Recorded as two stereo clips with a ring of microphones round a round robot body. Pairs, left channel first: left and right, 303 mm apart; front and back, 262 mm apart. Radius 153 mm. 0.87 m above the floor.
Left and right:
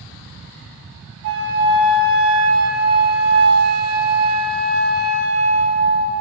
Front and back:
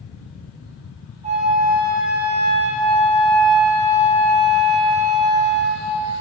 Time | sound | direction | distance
1.2 | a flute | 120° right | 1.1 m